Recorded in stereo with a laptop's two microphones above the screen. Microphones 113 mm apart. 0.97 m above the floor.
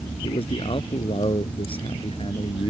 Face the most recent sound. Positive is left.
turn(degrees=55)  # may be behind; listen again after turning